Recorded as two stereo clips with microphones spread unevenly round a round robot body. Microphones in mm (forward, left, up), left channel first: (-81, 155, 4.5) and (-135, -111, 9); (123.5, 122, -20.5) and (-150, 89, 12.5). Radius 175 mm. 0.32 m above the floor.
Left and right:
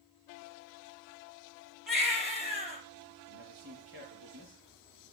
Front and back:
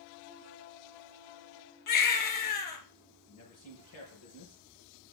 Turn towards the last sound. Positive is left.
turn(degrees=-40)